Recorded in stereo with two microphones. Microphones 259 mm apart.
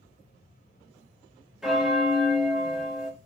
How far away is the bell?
About 0.7 m.